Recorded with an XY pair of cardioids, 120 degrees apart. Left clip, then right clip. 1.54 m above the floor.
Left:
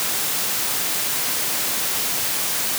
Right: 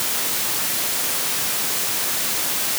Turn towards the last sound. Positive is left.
No sound to turn to.